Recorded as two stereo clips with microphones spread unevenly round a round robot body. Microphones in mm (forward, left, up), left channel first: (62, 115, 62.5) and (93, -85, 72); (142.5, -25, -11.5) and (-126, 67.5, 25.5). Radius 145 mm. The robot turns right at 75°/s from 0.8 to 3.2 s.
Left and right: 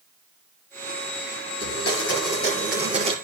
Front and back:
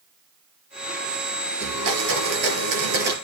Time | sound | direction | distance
1.6 | a blender | 105° left | 5.5 m